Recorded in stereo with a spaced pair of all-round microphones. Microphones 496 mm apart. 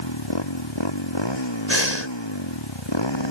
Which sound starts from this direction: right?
Breathing, at 1.7 s.